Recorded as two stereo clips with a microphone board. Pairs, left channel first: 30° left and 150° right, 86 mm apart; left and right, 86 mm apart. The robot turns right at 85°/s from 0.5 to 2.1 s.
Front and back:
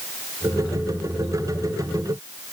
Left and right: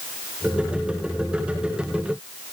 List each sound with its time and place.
Only background noise.